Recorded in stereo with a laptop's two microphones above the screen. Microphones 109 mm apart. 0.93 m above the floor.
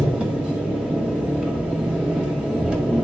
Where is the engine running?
10° right (ahead or behind), 2.5 m.